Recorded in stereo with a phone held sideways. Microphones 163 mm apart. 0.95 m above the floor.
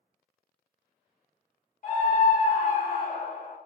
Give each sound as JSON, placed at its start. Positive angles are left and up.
{"t": 1.8, "sound": "a scream", "side_deg": 55, "distance_m": 0.8}